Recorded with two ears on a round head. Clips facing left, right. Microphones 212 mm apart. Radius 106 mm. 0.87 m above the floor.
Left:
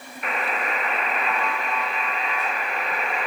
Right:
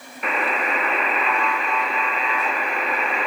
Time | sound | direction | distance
0.2 | a buzzer | 65° right (ahead or behind) | 0.5 m